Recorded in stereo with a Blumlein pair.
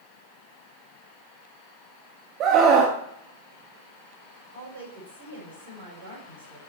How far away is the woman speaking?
About 7 m.